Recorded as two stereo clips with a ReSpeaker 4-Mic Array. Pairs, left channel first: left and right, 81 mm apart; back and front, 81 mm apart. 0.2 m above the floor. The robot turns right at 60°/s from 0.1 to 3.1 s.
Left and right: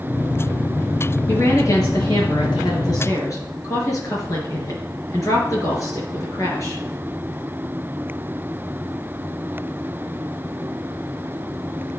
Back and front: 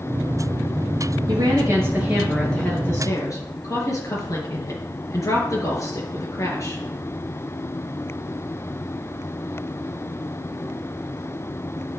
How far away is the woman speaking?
About 4 m.